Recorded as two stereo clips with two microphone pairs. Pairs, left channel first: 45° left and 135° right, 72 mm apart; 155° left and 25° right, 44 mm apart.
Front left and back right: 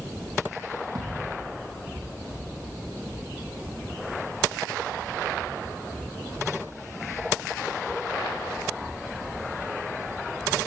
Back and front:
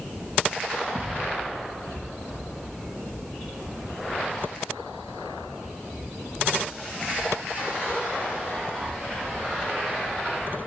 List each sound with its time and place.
0.9 s a thud: 175° right, 5.5 m